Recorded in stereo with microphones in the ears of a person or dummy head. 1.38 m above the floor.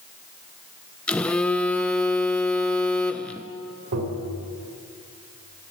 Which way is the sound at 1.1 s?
15° left (ahead or behind).